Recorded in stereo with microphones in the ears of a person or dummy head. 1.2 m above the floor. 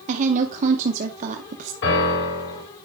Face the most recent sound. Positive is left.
turn(degrees=70)  # may be behind; listen again after turning